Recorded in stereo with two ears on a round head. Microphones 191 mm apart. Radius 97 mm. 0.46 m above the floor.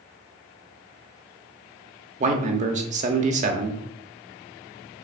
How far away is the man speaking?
About 0.9 m.